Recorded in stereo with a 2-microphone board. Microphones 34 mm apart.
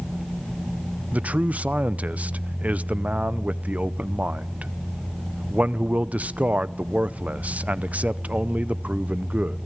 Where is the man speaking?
50° right (ahead or behind), 0.6 m.